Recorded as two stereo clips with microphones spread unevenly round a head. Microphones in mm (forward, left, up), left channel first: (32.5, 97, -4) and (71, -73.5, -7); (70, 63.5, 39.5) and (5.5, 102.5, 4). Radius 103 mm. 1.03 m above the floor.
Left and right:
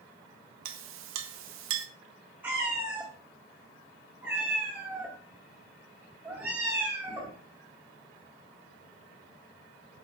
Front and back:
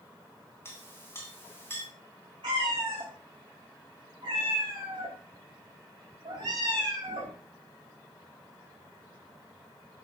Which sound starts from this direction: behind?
A cat meowing, at 2.4 s.